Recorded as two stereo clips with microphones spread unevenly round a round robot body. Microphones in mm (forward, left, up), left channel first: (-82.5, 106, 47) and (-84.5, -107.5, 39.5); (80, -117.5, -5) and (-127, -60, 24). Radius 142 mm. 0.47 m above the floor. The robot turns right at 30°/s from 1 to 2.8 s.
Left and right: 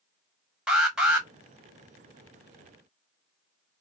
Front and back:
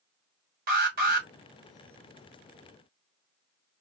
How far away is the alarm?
About 1.5 m.